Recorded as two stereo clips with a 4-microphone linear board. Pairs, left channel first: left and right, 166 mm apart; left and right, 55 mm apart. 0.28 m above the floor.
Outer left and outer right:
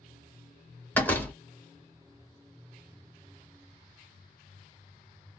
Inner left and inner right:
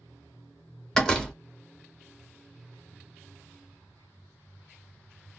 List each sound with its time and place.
0.9 s a door slam: 10° left (ahead or behind), 1.1 m